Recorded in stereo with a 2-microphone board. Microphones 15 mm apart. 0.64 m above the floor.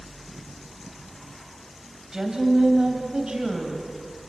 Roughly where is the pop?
No pop in this recording.